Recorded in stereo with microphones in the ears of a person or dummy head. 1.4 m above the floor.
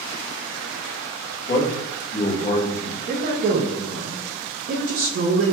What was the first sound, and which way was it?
A man speaking, 50° left (ahead or behind).